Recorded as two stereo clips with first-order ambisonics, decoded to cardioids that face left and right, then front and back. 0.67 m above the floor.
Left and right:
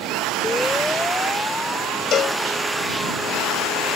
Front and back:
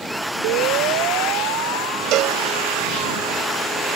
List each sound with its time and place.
0.4 s a siren: 175° left; by 3.1 s 170° left
2.1 s a cowbell: 145° left